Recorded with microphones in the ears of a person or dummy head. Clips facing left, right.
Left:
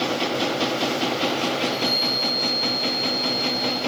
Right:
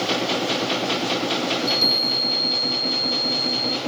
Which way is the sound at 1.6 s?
65° right (ahead or behind).